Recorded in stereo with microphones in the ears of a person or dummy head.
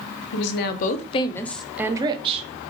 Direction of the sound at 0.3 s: 60° left (ahead or behind).